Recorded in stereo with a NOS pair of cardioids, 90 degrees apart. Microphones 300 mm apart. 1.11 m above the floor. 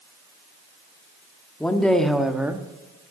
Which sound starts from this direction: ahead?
A woman speaking, at 1.6 s.